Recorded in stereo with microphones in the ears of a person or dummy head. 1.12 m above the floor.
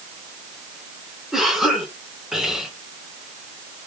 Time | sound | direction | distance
1.3 | a cough | centre (ahead or behind) | 3 m